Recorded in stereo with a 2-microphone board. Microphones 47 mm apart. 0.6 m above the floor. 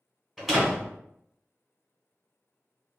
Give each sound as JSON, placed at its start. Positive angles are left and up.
{"t": 0.4, "sound": "a door slam", "side_deg": -5, "distance_m": 1.5}